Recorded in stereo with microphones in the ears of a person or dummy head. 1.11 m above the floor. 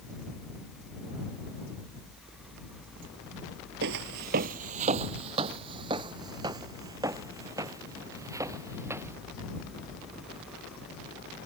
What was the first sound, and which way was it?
Footsteps, 50° right (ahead or behind).